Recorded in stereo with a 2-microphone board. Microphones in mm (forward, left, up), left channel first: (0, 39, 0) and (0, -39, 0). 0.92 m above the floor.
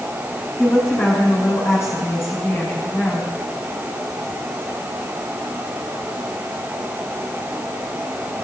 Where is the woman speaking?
35° left (ahead or behind), 6 m.